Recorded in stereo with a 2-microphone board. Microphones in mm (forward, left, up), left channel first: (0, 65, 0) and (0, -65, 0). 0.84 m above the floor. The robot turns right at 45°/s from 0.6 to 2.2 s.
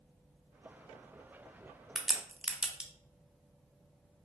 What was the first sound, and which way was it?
A crack, 5° left (ahead or behind).